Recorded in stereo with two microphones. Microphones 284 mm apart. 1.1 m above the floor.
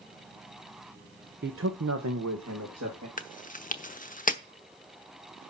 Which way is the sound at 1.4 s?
35° right (ahead or behind).